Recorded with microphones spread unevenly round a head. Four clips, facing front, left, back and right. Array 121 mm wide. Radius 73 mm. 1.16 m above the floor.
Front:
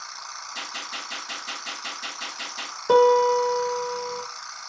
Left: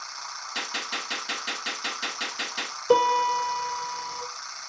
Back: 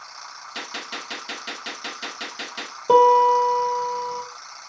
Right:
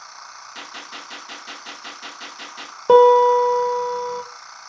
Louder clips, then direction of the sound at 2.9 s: Right 10 dB, back 3 dB; 100° right.